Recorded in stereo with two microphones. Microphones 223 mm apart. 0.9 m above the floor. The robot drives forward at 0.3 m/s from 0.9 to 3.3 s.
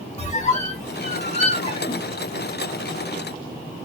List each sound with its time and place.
0.2 s a squeak: 30° left (ahead or behind), 0.8 m; by 2.1 s 25° left (ahead or behind), 1.1 m